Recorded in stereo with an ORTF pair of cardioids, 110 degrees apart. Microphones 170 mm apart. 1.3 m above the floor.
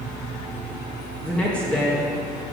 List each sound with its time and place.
1.2 s a woman speaking: 5° left, 2 m